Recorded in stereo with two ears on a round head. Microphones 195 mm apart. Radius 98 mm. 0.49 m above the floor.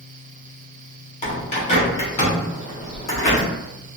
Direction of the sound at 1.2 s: 30° left (ahead or behind).